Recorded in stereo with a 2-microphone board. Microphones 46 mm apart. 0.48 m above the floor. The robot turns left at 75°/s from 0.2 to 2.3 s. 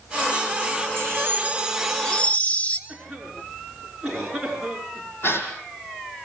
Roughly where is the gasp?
Left.